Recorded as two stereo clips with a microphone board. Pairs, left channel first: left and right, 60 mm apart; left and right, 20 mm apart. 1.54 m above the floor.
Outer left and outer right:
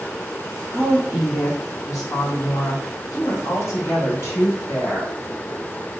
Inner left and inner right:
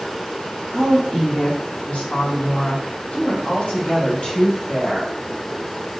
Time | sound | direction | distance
0.7 | a woman speaking | 50° left (ahead or behind) | 1.1 m